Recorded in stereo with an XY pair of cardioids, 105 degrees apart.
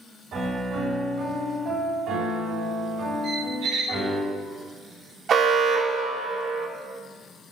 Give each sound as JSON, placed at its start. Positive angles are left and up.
{"t": 0.3, "sound": "a piano", "azimuth_deg": -65, "distance_m": 3.5}
{"t": 3.2, "sound": "a squeak", "azimuth_deg": -70, "distance_m": 1.8}
{"t": 5.3, "sound": "an alarm", "azimuth_deg": -60, "distance_m": 1.4}